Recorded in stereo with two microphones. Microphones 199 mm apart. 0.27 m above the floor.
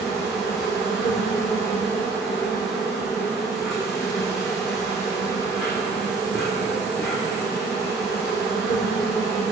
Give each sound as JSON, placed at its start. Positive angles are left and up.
{"t": 0.0, "sound": "an insect", "side_deg": 0, "distance_m": 2.5}